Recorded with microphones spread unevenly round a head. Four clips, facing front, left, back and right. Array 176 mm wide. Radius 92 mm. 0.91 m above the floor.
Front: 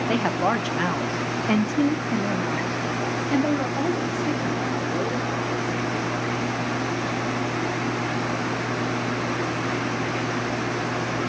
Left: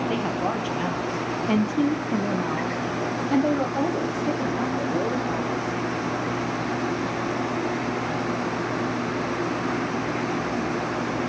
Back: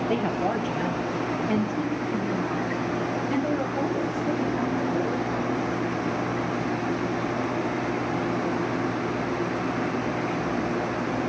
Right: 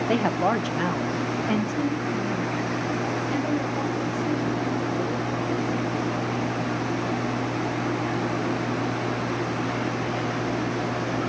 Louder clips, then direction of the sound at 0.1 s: Right 3 dB, front 4 dB; 85° right.